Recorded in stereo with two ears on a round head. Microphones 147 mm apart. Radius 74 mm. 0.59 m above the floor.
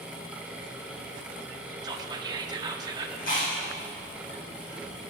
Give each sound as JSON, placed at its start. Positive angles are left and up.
{"t": 1.8, "sound": "whispering", "side_deg": -25, "distance_m": 0.7}
{"t": 3.2, "sound": "chewing", "side_deg": 55, "distance_m": 4.5}